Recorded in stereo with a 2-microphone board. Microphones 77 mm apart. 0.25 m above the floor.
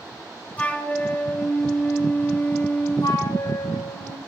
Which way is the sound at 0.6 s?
20° left (ahead or behind).